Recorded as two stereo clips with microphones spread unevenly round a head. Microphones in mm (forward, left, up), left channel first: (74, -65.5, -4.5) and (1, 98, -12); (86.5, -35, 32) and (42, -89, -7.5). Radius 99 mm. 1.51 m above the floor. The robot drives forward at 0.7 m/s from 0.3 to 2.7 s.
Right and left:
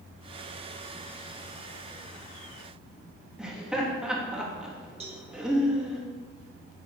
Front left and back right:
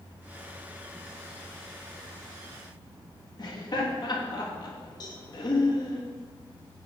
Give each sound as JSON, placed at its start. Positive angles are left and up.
{"t": 3.4, "sound": "laughter", "azimuth_deg": 30, "distance_m": 3.5}
{"t": 5.0, "sound": "a cowbell", "azimuth_deg": 60, "distance_m": 2.5}